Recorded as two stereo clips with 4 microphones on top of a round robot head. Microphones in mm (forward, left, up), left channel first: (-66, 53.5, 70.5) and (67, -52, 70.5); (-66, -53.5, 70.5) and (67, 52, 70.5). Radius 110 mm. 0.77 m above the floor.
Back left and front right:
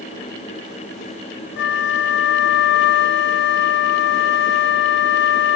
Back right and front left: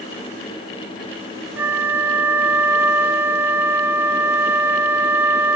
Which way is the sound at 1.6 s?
115° left.